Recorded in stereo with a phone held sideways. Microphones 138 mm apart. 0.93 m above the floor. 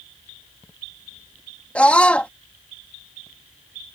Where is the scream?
10° left (ahead or behind).